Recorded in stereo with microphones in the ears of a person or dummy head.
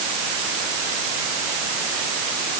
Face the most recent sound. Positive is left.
No sound to turn to.